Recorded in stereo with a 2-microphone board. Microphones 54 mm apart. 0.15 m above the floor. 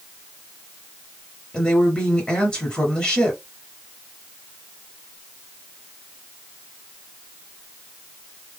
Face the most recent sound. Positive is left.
turn(degrees=15)  # may be behind; listen again after turning